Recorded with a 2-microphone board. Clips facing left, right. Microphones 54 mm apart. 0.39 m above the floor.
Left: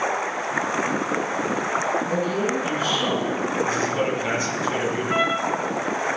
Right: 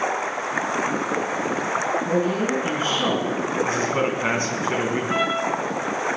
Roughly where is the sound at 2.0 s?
Right.